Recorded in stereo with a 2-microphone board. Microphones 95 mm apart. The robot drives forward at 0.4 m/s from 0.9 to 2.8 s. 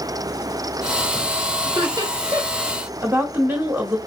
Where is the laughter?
40° right (ahead or behind), 1.4 m; by 2.7 s 35° right (ahead or behind), 1.6 m.